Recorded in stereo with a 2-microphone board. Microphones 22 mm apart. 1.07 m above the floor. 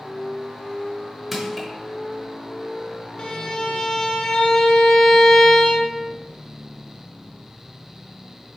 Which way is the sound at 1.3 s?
5° right (ahead or behind).